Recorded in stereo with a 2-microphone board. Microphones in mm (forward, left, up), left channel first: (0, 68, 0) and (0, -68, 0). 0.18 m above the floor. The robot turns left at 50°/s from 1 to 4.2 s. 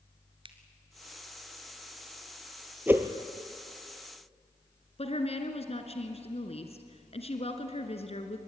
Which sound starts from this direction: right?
A finger snap, at 0.5 s.